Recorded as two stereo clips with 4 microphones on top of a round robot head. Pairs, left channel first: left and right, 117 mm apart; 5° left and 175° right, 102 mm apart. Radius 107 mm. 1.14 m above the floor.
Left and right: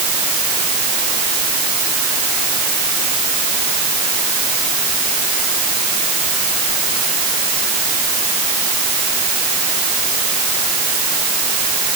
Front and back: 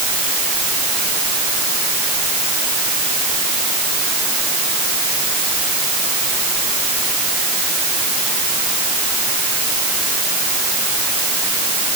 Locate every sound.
Only background noise.